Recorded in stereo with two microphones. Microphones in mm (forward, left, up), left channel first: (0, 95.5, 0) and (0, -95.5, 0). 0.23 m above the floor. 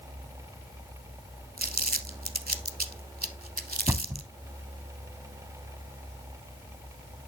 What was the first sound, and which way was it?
Crumpling, 50° right (ahead or behind).